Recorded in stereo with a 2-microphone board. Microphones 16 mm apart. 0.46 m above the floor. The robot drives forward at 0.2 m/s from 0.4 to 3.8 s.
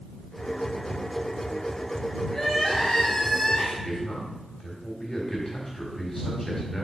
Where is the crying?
55° left (ahead or behind), 2.5 m.